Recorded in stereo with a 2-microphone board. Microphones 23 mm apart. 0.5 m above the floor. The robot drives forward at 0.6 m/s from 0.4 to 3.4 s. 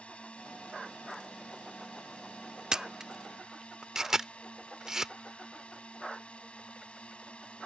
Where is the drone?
65° left (ahead or behind); by 7.7 s 60° left (ahead or behind).